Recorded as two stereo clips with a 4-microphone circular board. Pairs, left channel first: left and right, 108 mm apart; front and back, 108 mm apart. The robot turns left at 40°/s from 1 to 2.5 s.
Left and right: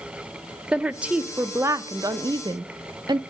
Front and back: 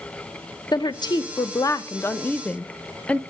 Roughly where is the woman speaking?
Ahead.